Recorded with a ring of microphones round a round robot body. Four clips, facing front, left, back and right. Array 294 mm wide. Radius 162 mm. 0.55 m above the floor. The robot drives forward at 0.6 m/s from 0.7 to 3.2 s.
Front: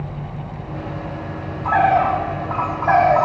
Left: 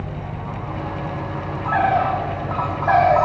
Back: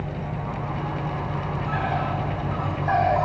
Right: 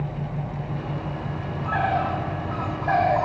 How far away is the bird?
About 2 m.